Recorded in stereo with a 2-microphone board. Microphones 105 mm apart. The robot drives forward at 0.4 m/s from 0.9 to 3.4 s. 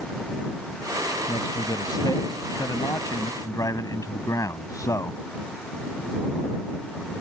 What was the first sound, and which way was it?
A man speaking, 50° left (ahead or behind).